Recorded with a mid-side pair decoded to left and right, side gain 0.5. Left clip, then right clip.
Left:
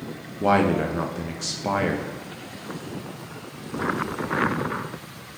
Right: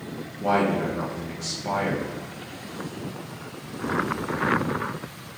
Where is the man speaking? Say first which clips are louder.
Left 2 dB; 40° left, 1.2 m.